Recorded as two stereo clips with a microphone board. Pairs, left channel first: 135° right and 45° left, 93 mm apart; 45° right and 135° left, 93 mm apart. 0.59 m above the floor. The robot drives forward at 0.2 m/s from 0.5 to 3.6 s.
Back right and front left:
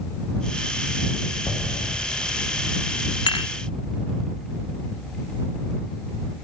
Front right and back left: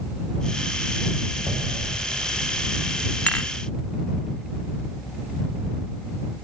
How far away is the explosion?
About 0.7 m.